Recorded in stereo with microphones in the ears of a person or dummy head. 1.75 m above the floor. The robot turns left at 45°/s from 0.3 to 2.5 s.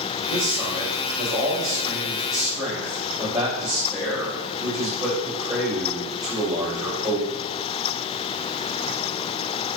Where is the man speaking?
50° right, 1.8 m; by 7.3 s 145° right, 1.8 m.